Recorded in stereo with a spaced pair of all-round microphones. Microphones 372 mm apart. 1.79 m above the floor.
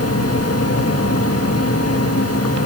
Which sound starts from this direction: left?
A fan, at 0.0 s.